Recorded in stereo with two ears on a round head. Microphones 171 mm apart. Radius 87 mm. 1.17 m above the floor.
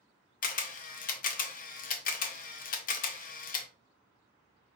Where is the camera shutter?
45° left (ahead or behind), 0.6 m.